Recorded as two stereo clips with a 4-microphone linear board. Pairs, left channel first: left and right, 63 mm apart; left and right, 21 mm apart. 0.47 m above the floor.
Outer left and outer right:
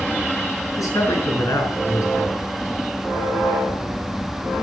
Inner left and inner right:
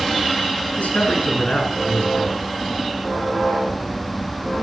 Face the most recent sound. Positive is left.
turn(degrees=65)  # may be behind; listen again after turning